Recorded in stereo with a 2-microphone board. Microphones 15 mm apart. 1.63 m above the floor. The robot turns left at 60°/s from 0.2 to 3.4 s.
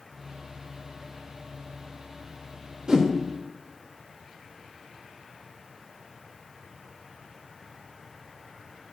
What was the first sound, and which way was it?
A whoosh, 45° right (ahead or behind).